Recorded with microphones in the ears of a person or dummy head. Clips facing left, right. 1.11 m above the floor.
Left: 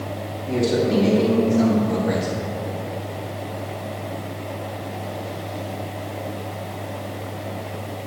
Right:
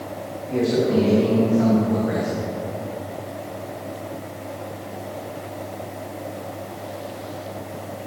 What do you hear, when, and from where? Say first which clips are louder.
0.5 s a man speaking: even; 50° left (ahead or behind), 3 m; by 2.3 s 55° left (ahead or behind), 1.9 m